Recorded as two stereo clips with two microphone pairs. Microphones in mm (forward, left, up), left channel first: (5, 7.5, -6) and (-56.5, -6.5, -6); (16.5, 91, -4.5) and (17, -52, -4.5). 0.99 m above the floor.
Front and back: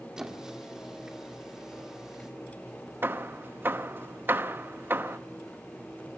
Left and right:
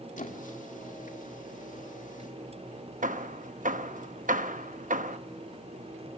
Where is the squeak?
115° left, 1.9 m.